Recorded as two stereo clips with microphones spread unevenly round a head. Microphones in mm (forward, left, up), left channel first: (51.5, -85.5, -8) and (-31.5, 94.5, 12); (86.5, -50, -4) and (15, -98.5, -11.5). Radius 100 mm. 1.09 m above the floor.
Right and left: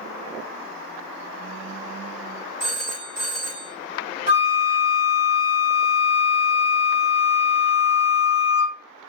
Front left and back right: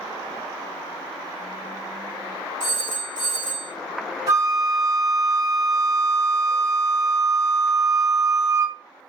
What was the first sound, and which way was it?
A phone ringing, 170° right.